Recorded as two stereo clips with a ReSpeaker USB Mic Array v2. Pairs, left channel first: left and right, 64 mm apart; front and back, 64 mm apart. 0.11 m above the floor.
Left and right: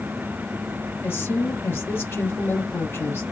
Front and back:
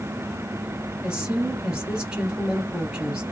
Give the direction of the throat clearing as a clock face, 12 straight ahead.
I don't hear throat clearing.